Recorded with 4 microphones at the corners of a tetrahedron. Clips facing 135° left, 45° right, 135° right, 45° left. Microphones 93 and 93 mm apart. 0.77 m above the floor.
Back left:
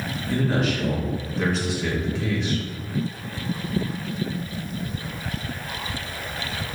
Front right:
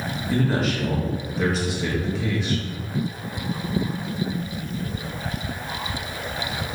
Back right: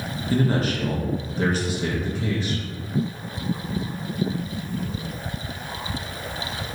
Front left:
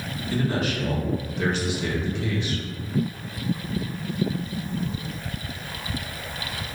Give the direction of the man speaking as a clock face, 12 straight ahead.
4 o'clock.